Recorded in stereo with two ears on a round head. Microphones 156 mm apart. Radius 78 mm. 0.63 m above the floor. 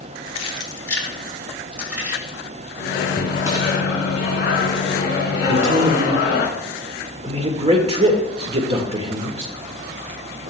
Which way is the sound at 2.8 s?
60° left (ahead or behind).